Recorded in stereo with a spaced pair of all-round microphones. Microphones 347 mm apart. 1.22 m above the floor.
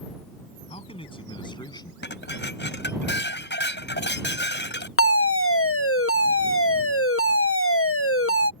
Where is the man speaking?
15° left (ahead or behind); by 1.9 s 10° left (ahead or behind).